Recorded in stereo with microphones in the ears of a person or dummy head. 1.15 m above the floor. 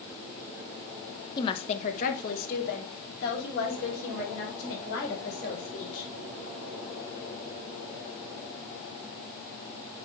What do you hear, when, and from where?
1.4 s a woman speaking: 20° left (ahead or behind), 0.9 m; by 6.1 s 65° left (ahead or behind), 5.5 m